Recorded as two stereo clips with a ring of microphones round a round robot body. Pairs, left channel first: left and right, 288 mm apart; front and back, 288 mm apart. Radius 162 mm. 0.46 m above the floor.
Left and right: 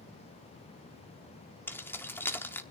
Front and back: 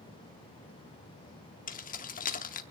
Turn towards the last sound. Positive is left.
turn(degrees=15)